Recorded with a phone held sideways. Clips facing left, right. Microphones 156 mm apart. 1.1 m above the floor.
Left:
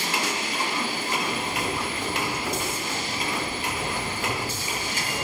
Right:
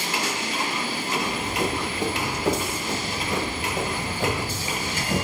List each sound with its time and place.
1.2 s running footsteps: 80° right, 6.5 m; by 5.2 s 65° right (ahead or behind), 5.5 m